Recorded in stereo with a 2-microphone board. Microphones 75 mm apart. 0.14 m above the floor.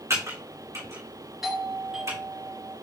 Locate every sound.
0.1 s typing on a keyboard: 40° right (ahead or behind), 3.5 m
1.4 s a doorbell: 5° right (ahead or behind), 2 m